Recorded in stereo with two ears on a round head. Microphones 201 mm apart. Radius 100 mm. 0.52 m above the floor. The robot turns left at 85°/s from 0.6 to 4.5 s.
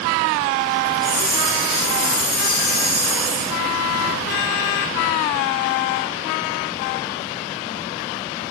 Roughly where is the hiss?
Behind.